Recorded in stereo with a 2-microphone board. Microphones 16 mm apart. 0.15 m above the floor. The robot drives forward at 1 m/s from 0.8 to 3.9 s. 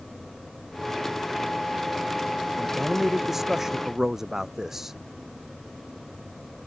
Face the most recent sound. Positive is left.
turn(degrees=-30)  # may be behind; listen again after turning